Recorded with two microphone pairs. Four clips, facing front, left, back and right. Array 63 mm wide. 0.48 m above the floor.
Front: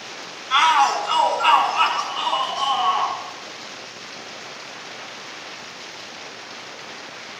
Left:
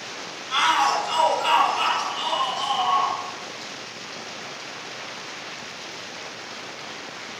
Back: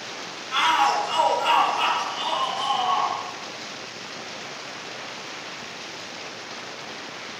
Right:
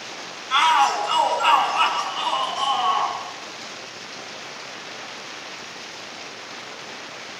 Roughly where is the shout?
Ahead.